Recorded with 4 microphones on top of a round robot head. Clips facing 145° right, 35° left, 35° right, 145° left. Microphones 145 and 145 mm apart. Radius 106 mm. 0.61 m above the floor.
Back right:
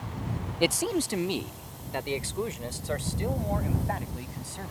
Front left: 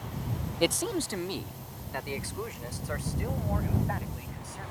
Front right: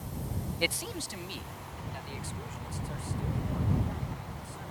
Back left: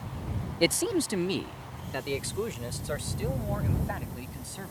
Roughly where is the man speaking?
Behind left.